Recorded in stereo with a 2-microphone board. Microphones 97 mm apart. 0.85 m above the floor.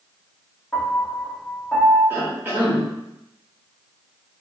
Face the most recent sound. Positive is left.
turn(degrees=-25)  # may be behind; listen again after turning